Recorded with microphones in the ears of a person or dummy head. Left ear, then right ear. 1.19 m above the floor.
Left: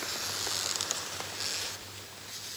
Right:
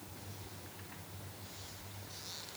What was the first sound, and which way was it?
Only background noise.